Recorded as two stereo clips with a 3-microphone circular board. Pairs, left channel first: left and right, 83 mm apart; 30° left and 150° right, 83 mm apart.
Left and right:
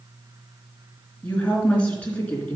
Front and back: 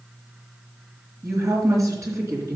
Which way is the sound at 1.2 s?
160° left.